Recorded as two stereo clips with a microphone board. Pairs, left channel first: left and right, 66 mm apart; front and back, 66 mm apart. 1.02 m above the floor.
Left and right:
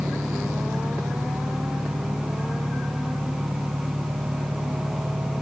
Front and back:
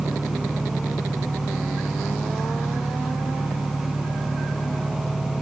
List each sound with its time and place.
0.0 s an engine running: 45° right